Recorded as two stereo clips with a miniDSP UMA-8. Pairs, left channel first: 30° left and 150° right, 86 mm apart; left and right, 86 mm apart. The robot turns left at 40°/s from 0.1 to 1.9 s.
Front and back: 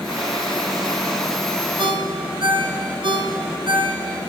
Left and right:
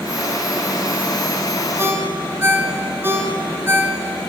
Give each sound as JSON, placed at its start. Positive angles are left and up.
{"t": 1.8, "sound": "a ringtone", "azimuth_deg": -150, "distance_m": 1.7}